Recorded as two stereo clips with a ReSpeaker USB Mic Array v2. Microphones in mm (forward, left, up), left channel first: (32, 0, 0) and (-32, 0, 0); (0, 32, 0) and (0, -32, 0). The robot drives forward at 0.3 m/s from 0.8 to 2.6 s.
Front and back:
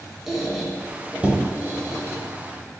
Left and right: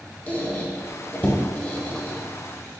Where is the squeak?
100° left, 0.5 m; by 2.2 s 155° left, 0.7 m.